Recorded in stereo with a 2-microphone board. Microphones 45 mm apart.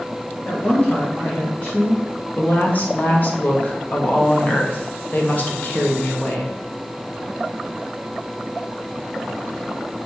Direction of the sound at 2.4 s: 35° left (ahead or behind).